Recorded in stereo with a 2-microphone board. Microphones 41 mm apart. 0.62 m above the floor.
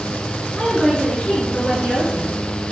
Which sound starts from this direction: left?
A woman speaking, at 0.6 s.